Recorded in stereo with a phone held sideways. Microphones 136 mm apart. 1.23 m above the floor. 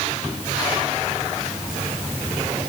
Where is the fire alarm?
I don't hear a fire alarm.